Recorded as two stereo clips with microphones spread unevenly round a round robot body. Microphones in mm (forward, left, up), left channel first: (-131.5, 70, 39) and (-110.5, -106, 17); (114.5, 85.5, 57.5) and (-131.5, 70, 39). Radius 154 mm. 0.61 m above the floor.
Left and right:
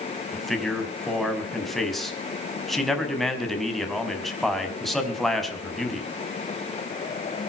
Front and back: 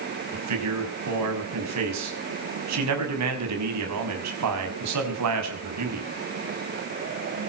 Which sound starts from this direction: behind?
A man speaking, at 0.3 s.